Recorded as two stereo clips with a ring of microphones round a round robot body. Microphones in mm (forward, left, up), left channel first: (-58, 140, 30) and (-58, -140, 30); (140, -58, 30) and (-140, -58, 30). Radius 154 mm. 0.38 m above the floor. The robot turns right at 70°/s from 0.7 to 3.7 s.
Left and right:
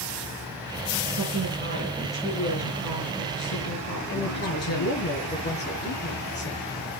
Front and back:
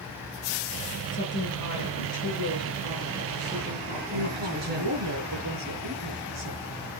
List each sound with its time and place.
1.1 s a woman speaking: 60° right, 5.5 m; by 5.0 s 120° left, 5.5 m
4.1 s a woman speaking: 140° left, 8.5 m